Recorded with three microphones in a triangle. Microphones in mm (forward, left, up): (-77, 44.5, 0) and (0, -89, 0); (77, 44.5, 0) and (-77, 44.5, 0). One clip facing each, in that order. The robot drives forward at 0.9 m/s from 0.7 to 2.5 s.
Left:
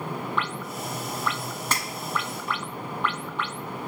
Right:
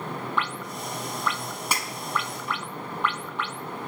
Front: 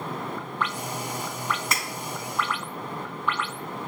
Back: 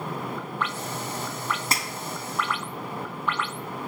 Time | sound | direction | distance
1.7 | breaking glass | 135° right | 1.1 m